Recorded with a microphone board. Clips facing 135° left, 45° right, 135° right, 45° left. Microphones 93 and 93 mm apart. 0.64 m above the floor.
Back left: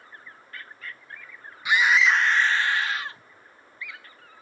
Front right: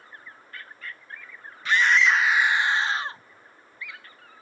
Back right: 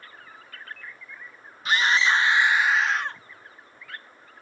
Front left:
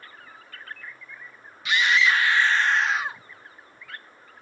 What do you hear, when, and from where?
1.6 s a scream: 155° right; by 3.2 s 25° right